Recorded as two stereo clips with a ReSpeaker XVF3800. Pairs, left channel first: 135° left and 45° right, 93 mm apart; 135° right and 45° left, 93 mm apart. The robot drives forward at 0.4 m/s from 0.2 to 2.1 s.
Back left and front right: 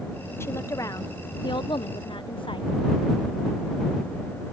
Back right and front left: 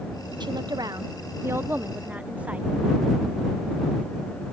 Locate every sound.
0.4 s a woman speaking: 75° left; by 2.7 s 120° left